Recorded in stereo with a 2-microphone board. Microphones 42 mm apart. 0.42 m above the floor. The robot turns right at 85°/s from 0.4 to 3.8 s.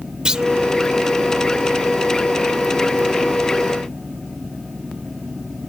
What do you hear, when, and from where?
0.2 s a clunk: 20° right (ahead or behind); by 0.5 s 15° right (ahead or behind)